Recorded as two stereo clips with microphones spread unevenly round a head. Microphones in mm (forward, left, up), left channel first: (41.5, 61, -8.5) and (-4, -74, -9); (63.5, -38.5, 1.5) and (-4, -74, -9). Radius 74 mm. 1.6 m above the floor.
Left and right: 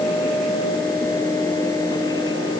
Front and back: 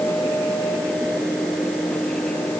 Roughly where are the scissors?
I don't hear scissors.